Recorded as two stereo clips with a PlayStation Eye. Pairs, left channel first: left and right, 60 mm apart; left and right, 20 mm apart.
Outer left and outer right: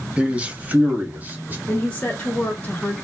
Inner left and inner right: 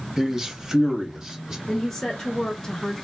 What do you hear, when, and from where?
0.2 s a man speaking: 20° right (ahead or behind), 1.2 m; by 1.6 s 30° right (ahead or behind), 2 m
1.7 s a woman speaking: 25° left (ahead or behind), 1.3 m